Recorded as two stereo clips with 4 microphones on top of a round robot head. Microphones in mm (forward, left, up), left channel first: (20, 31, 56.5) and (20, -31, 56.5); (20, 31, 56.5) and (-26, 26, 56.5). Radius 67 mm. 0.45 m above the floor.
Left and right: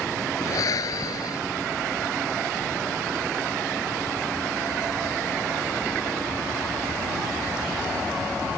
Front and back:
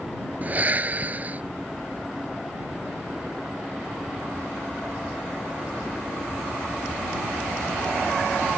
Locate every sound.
0.4 s breathing: 130° left